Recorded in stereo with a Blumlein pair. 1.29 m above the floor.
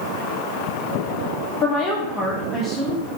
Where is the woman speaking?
20° left, 0.9 m; by 3.1 s straight ahead, 1.9 m.